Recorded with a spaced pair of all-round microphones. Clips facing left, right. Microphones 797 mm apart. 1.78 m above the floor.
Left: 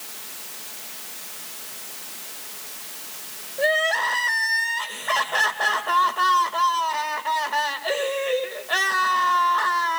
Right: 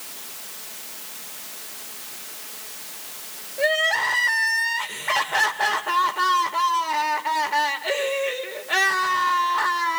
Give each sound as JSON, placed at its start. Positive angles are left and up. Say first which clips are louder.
{"t": 3.6, "sound": "crying", "louder": "left 1 dB", "side_deg": -50, "distance_m": 2.0}